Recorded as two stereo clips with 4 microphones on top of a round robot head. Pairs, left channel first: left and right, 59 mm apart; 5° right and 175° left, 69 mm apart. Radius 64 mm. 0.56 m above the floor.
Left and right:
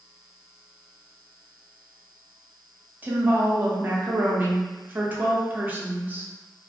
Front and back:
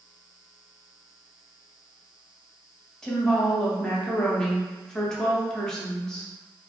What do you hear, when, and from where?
3.0 s a woman speaking: 80° right, 0.7 m